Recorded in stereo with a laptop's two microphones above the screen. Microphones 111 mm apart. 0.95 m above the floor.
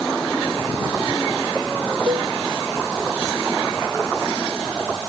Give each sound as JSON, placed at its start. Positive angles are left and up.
{"t": 2.1, "sound": "a cowbell", "side_deg": -50}